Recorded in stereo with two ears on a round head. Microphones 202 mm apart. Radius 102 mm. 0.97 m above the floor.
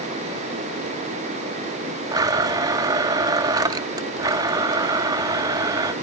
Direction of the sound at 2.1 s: 15° right (ahead or behind).